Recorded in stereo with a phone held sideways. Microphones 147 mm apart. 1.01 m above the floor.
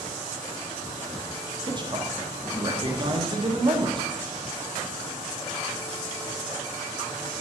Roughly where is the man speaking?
Right.